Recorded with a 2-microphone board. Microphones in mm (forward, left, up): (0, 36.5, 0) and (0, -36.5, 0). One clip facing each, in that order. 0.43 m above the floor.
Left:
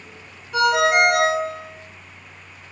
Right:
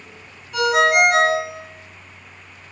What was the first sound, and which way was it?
A ringtone, 25° left (ahead or behind).